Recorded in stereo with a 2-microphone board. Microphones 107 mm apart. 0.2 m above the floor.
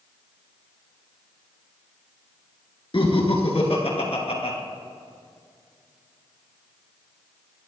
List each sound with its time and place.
2.9 s laughter: 55° left (ahead or behind), 2.5 m; by 4.6 s 65° left (ahead or behind), 2.5 m